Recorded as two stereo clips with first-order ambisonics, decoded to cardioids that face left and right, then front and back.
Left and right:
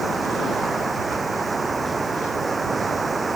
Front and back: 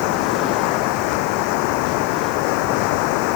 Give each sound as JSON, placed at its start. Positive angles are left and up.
{"t": 0.0, "sound": "running water", "azimuth_deg": -10}